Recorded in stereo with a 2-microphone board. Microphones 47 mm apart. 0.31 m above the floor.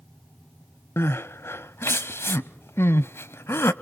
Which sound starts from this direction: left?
Crying, at 1.0 s.